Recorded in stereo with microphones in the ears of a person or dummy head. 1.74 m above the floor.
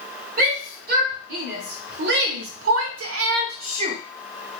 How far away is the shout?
About 2 m.